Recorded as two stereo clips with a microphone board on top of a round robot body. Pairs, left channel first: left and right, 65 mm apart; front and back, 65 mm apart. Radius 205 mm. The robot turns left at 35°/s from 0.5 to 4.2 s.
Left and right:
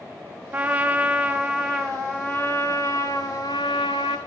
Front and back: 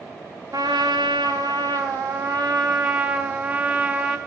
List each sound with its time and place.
0.5 s a trumpet: 145° right, 0.7 m; by 4.2 s 85° left, 0.7 m